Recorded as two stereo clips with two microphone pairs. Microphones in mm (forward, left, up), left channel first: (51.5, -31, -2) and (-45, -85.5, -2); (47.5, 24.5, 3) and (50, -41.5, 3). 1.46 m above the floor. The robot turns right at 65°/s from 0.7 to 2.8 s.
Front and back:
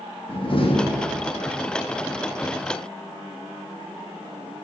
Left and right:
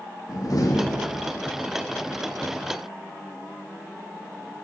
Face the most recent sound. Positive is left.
turn(degrees=-155)